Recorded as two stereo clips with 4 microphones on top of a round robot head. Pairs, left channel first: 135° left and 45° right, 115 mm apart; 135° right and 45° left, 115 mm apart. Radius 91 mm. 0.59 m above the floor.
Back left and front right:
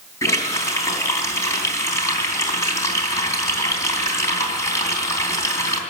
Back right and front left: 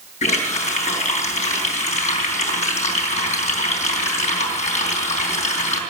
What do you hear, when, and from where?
0.2 s a running tap: 160° right, 3.5 m